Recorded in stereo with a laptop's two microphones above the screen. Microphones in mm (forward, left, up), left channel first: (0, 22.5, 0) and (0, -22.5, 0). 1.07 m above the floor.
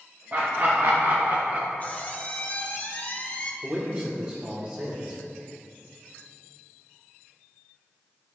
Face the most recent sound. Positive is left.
turn(degrees=-25)  # may be behind; listen again after turning